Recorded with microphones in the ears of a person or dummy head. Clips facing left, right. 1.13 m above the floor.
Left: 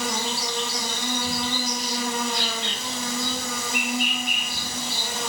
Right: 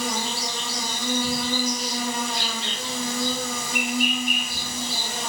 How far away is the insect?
About 2.5 m.